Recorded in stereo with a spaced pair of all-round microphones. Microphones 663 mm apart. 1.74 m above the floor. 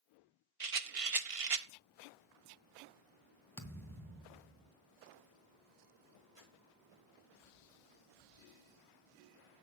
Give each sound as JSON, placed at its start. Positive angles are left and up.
{"t": 0.6, "sound": "a rattle", "side_deg": -55, "distance_m": 0.8}
{"t": 3.6, "sound": "a thud", "side_deg": 5, "distance_m": 2.5}
{"t": 6.3, "sound": "crumpling", "side_deg": -50, "distance_m": 5.0}